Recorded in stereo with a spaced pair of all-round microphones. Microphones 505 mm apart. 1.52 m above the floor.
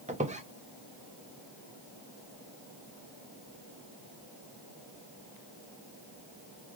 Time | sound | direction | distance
0.1 | a squeak | 15° right (ahead or behind) | 0.6 m